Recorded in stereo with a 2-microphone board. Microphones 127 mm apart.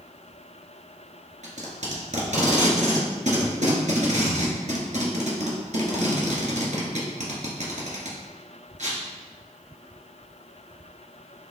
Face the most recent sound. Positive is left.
turn(degrees=-70)  # may be behind; listen again after turning